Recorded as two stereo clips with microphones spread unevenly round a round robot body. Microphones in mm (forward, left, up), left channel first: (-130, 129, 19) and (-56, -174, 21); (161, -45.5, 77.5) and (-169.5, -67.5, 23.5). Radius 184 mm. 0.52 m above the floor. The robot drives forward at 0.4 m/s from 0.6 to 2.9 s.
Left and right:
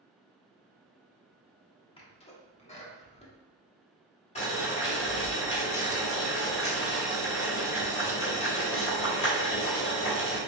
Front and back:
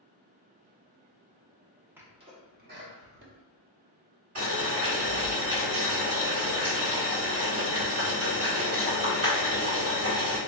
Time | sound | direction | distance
2.0 | a sneeze | 140° left | 0.6 m
4.3 | boiling | 170° left | 1.7 m